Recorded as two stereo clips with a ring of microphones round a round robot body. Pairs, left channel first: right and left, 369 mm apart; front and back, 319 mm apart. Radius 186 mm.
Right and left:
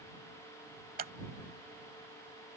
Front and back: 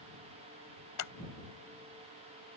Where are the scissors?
25° left.